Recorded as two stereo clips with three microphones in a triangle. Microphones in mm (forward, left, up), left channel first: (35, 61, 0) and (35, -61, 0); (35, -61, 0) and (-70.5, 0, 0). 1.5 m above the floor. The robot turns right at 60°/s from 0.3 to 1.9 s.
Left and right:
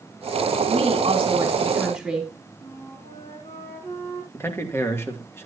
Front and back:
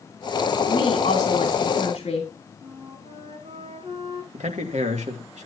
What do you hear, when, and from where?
0.7 s a woman speaking: 70° right, 3 m; by 2.3 s 5° left, 3 m
2.6 s a flute: 110° left, 5.5 m
4.3 s a man speaking: 160° left, 2.5 m